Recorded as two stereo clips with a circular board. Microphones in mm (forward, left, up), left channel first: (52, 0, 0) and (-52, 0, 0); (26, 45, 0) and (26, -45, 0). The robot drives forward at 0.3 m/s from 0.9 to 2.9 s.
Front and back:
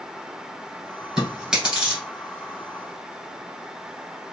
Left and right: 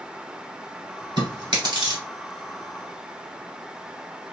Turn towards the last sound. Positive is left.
turn(degrees=-115)